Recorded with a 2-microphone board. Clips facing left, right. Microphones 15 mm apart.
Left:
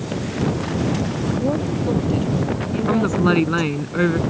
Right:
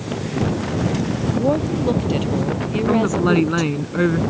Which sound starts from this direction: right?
A woman speaking, at 1.3 s.